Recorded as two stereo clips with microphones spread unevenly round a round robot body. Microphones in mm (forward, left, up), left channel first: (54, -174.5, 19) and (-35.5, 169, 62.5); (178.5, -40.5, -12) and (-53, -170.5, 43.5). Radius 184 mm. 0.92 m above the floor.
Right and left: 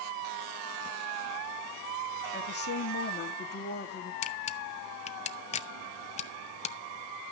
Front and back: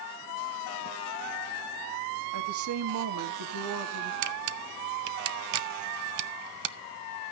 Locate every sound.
2.3 s a woman speaking: 135° right, 2 m
4.2 s a camera shutter: 145° right, 0.9 m